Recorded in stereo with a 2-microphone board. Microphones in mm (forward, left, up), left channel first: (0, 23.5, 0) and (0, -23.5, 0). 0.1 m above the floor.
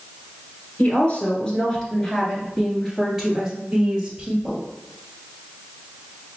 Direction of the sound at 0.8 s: 35° left (ahead or behind).